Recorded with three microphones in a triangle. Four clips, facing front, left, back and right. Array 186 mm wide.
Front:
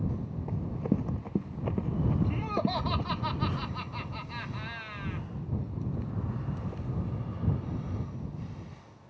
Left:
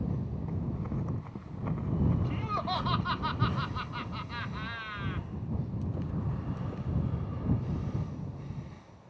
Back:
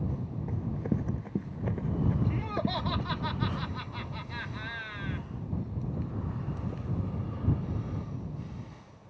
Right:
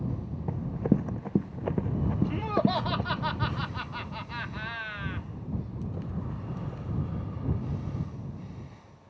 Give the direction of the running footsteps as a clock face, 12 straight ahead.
3 o'clock.